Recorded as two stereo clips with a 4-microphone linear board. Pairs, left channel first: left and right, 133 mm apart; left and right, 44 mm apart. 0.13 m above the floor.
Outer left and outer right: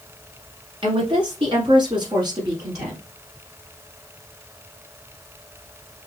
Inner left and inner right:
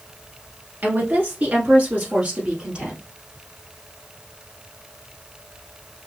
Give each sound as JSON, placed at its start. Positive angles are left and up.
{"t": 0.8, "sound": "a woman speaking", "side_deg": -40, "distance_m": 1.5}